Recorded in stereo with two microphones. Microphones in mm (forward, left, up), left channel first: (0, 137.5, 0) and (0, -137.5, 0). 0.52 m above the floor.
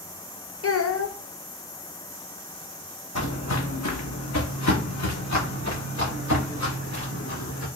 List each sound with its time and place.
0.6 s a child speaking: 55° left (ahead or behind), 0.7 m
3.1 s footsteps: 65° left (ahead or behind), 1.2 m; by 7.7 s 75° left (ahead or behind), 3.5 m